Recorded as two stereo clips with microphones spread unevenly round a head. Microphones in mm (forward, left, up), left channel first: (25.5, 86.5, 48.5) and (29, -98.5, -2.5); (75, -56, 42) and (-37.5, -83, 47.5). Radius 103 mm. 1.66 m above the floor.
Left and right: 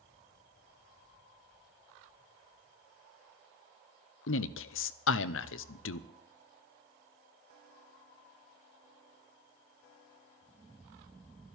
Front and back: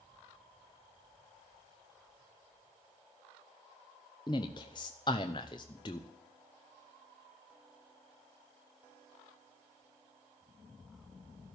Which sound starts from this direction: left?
A man speaking, at 4.3 s.